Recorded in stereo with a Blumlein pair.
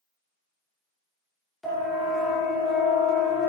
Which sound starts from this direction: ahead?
A siren, at 1.6 s.